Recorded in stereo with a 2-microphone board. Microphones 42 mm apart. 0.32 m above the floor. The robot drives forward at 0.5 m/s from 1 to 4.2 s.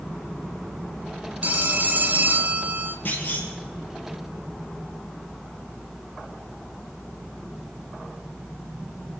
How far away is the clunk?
About 3.5 m.